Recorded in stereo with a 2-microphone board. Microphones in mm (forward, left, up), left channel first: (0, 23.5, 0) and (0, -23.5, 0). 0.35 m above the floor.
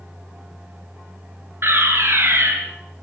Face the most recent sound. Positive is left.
turn(degrees=-55)  # may be behind; listen again after turning